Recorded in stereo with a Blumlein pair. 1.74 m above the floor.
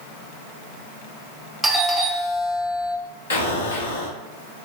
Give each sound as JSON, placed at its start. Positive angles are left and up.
{"t": 1.6, "sound": "a doorbell", "azimuth_deg": 0, "distance_m": 0.9}
{"t": 3.3, "sound": "an explosion", "azimuth_deg": 65, "distance_m": 1.2}